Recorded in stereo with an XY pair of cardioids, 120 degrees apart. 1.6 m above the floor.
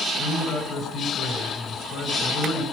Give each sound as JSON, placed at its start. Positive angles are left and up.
{"t": 0.2, "sound": "a man speaking", "azimuth_deg": 70, "distance_m": 7.5}